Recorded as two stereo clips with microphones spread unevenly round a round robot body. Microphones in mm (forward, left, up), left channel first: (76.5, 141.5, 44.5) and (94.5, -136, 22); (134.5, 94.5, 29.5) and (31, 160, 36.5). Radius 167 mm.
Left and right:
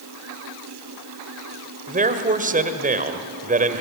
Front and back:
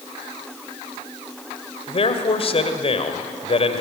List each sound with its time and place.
1.9 s a man speaking: 35° right, 1.8 m